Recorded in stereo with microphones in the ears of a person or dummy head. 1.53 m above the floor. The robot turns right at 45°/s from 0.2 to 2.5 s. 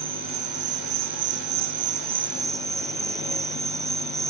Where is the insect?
120° right, 1.1 m; by 4.3 s 15° right, 1.1 m.